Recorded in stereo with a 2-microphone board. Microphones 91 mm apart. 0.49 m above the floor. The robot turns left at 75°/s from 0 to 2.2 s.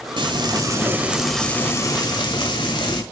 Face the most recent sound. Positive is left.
turn(degrees=110)